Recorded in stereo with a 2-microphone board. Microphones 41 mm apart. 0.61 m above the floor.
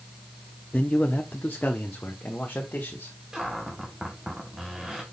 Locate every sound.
0.7 s a man speaking: 30° left (ahead or behind), 0.6 m; by 3.1 s 50° left (ahead or behind), 1.8 m
3.3 s a cupboard door: 15° right (ahead or behind), 1.7 m